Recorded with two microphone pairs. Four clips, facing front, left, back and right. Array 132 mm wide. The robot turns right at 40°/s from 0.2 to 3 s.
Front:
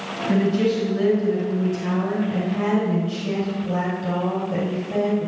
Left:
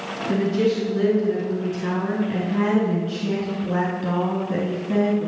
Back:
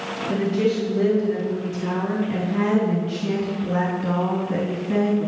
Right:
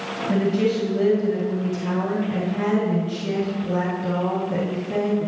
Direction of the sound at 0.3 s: 15° left.